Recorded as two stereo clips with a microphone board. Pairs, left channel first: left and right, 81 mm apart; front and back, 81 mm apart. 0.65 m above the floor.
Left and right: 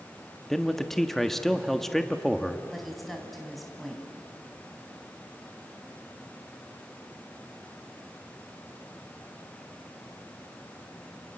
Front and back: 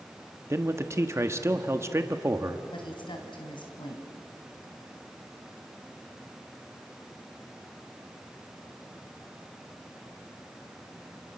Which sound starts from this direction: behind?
A man speaking, at 0.5 s.